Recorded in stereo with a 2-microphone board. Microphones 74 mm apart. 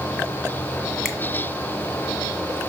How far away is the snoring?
No snoring in this recording.